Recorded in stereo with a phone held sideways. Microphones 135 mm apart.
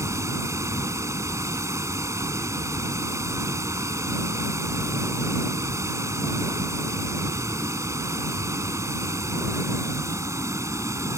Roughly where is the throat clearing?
I don't hear throat clearing.